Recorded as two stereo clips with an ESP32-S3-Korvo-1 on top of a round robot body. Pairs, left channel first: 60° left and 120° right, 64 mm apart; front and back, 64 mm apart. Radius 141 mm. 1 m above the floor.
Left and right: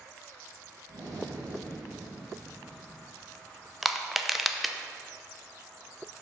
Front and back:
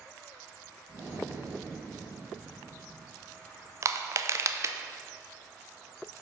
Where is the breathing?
130° right, 1.7 m.